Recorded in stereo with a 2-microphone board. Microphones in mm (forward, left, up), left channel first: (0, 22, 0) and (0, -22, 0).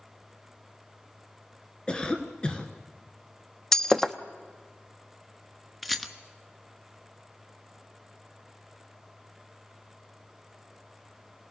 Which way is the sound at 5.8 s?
5° left (ahead or behind).